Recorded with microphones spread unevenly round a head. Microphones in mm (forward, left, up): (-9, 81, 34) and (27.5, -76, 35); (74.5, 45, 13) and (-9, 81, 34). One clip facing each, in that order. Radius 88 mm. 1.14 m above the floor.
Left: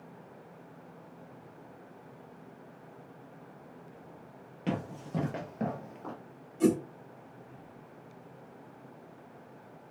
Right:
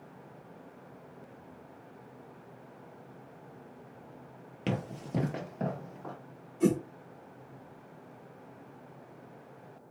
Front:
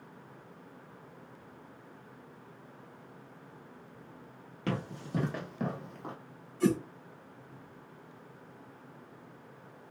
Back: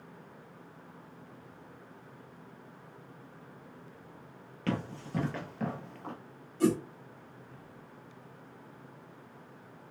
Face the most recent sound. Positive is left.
turn(degrees=150)